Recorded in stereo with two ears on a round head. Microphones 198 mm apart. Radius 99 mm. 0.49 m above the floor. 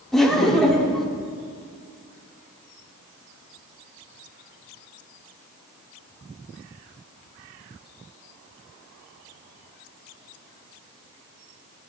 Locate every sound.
0.1 s laughter: centre (ahead or behind), 0.8 m